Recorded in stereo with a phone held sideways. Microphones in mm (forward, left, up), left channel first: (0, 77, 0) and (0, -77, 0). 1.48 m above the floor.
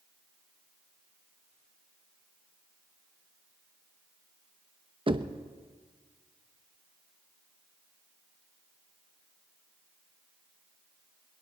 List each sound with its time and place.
5.1 s knocking: 35° right (ahead or behind), 0.8 m